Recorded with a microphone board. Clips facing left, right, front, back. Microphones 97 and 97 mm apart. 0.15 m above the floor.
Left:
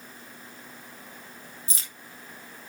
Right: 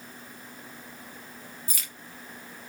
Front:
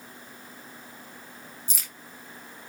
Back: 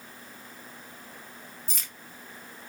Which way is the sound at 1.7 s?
80° left.